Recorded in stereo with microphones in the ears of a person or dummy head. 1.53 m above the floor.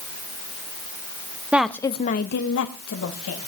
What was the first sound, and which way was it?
A woman speaking, centre (ahead or behind).